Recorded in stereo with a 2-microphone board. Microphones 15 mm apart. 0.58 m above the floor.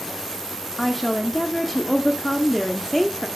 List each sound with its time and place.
0.8 s a woman speaking: 10° left (ahead or behind), 1.3 m